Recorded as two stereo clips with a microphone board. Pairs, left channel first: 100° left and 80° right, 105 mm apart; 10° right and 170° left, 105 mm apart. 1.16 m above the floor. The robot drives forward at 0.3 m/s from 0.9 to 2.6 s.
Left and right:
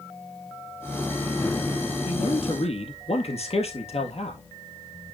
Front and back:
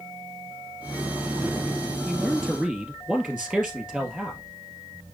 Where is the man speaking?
85° left, 1.8 m; by 4.4 s 90° left, 1.8 m.